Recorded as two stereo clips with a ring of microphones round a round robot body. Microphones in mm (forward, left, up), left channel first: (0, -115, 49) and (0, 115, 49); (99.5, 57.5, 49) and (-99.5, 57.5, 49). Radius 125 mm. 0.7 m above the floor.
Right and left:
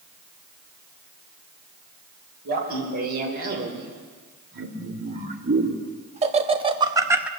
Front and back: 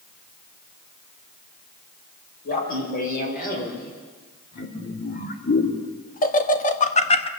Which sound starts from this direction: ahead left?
Laughter, at 2.5 s.